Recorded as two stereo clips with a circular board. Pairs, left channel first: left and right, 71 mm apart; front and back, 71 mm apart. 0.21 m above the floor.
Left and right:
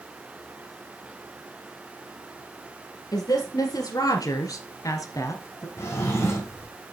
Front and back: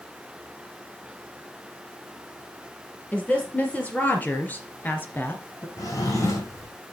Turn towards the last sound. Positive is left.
turn(degrees=40)